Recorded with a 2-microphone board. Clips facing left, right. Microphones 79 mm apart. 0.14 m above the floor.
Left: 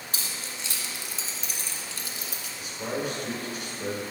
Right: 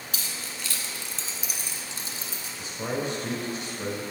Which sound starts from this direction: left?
Keys jangling, at 0.1 s.